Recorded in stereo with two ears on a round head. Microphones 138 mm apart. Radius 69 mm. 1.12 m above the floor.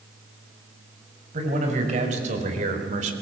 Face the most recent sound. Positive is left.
turn(degrees=-55)  # may be behind; listen again after turning